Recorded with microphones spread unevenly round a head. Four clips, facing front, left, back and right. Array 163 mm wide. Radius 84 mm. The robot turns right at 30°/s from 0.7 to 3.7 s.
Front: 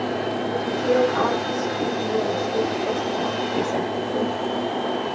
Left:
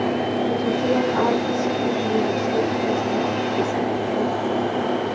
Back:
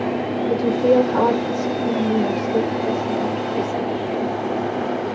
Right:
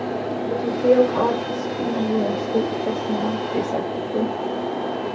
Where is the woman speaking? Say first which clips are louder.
Right 7 dB, back 6 dB; 170° right, 2 m; by 4.4 s 80° right, 2 m.